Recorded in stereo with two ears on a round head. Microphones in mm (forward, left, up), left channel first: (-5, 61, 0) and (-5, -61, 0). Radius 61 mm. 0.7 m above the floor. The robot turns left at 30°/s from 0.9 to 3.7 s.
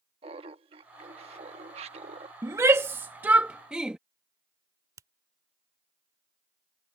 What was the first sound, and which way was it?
Laughter, 65° right.